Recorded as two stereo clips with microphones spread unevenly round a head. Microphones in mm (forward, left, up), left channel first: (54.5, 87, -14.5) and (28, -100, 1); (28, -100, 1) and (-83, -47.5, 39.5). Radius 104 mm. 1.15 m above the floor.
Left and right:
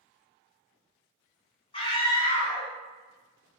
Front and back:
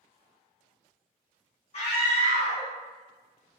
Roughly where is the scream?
Ahead.